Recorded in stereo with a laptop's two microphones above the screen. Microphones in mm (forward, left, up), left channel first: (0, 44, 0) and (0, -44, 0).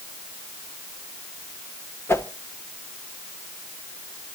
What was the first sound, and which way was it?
A whoosh, 30° left (ahead or behind).